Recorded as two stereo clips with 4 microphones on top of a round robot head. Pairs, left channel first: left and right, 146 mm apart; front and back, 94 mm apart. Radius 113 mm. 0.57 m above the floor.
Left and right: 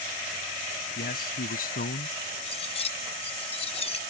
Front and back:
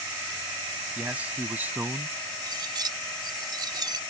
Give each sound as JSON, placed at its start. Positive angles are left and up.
{"t": 1.0, "sound": "a man speaking", "azimuth_deg": 105}
{"t": 2.4, "sound": "cutlery clinking", "azimuth_deg": 135}